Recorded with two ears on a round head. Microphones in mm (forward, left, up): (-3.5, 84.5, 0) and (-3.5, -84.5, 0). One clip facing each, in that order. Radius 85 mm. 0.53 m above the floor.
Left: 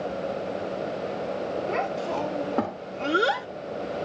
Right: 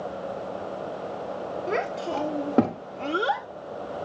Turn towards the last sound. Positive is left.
turn(degrees=45)  # may be behind; listen again after turning